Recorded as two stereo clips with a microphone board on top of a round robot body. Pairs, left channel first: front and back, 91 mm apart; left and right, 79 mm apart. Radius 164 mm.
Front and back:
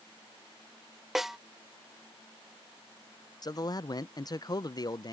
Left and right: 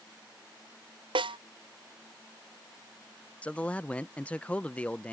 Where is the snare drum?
95° right.